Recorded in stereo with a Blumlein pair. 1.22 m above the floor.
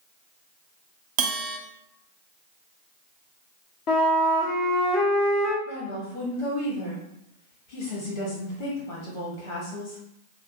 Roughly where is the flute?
Ahead left.